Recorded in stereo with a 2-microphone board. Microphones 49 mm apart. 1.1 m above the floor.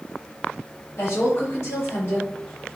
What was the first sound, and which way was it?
A woman speaking, 55° left (ahead or behind).